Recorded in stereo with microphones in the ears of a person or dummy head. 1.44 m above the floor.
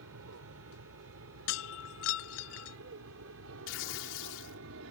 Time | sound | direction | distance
0.0 | an aircraft | 70° right (ahead or behind) | ?
1.5 | breaking glass | 65° left (ahead or behind) | ?
3.7 | tearing paper | 80° left | ?